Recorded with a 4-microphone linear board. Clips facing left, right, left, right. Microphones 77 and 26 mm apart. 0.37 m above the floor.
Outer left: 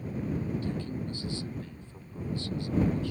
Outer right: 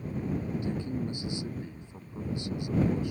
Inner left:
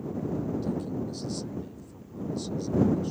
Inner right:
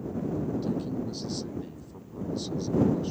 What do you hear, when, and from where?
0.6 s a man speaking: 20° right (ahead or behind)